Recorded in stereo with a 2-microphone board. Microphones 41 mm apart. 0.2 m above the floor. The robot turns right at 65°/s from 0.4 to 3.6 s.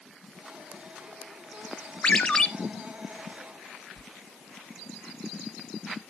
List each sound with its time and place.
2.0 s a ringtone: 25° left (ahead or behind), 0.5 m; by 2.5 s 10° left (ahead or behind), 0.5 m
4.0 s a sliding door: 5° left (ahead or behind), 0.6 m